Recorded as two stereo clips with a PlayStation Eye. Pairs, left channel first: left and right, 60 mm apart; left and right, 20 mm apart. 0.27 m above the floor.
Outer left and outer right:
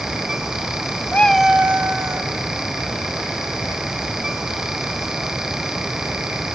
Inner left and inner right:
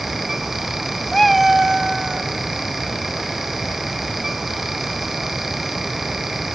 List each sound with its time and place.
1.1 s a cat meowing: 30° left (ahead or behind), 0.6 m; by 2.3 s 50° right (ahead or behind), 1.6 m